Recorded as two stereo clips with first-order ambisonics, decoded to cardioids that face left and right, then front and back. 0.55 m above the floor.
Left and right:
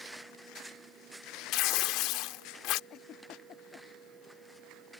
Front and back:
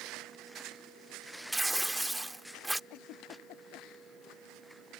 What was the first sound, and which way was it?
Tearing paper, 95° left.